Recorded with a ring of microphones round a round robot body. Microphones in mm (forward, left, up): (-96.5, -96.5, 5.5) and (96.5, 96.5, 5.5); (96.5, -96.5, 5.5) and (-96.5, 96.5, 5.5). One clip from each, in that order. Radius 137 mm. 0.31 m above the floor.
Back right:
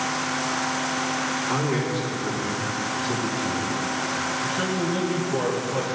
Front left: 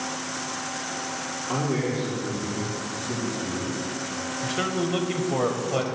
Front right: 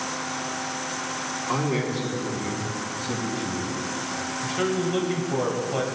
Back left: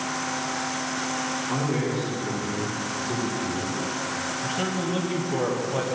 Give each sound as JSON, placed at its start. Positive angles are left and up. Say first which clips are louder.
{"t": 1.5, "sound": "a man speaking", "louder": "back right 2 dB, front right 1 dB", "azimuth_deg": -85, "distance_m": 3.5}
{"t": 4.4, "sound": "a man speaking", "louder": "back right 2 dB, front right 5 dB", "azimuth_deg": 30, "distance_m": 1.4}